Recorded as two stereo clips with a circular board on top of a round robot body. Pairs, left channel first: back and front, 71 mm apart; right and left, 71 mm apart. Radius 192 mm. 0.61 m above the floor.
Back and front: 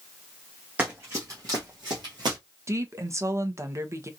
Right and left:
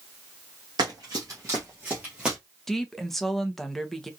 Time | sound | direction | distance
0.8 | running footsteps | 70° left | 0.9 m
2.7 | a woman speaking | 5° right | 0.9 m